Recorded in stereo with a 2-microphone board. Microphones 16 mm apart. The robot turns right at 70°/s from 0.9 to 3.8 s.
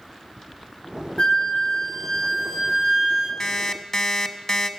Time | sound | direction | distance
1.2 | a flute | 60° left | 3 m
3.4 | an alarm clock | 40° left (ahead or behind) | 0.7 m